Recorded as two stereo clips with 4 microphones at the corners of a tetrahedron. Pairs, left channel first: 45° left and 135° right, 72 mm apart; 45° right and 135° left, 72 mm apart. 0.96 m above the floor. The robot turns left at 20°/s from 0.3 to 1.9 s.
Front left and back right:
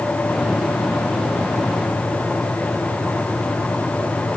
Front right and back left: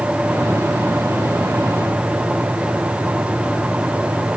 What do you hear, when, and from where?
Only background noise.